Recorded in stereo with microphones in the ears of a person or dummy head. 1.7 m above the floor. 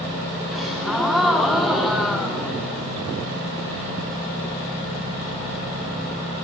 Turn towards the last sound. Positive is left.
turn(degrees=0)  # may be behind; listen again after turning